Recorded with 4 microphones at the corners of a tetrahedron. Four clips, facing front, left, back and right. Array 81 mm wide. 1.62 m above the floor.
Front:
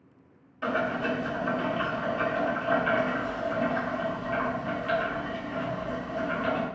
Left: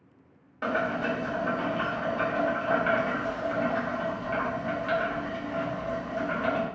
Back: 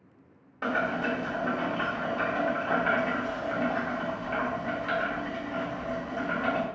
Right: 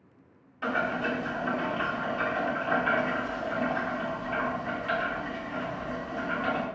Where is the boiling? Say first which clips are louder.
Left 1 dB, even; 130° left, 1.5 m.